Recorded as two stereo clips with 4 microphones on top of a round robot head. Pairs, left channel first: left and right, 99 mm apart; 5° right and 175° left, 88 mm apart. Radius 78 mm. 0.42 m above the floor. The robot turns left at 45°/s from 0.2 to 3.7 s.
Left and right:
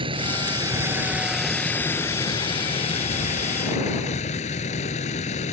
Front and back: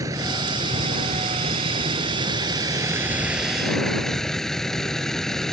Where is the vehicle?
125° right; by 5.5 s 80° left.